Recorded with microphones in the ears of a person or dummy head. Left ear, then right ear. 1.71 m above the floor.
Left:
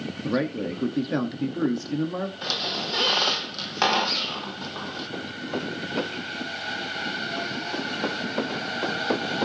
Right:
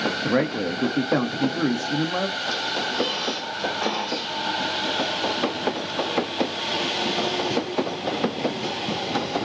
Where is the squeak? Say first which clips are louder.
Right 2 dB; 55° left (ahead or behind), 1.2 m.